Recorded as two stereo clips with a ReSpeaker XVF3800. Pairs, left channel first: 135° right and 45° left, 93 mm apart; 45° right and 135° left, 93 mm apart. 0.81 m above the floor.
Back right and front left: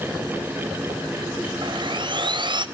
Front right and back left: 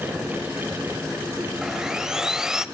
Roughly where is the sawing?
Ahead left.